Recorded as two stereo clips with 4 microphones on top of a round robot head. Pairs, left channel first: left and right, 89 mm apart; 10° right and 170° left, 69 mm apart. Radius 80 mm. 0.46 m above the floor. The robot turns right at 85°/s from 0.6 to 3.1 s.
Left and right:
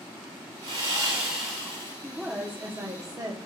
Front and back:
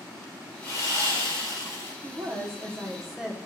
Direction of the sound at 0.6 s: 65° right.